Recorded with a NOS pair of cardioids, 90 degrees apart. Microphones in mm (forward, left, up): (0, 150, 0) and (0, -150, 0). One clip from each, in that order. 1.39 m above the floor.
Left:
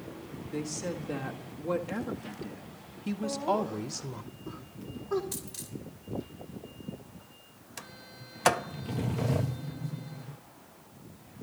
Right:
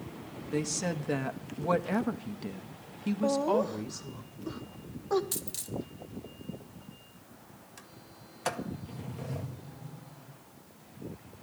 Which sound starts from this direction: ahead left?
A sliding door, at 7.8 s.